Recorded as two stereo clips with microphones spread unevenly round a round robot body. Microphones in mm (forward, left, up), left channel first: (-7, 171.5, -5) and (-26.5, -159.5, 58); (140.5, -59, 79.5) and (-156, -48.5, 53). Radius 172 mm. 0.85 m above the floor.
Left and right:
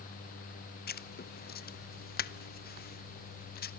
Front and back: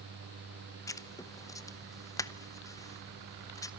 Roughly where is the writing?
Left.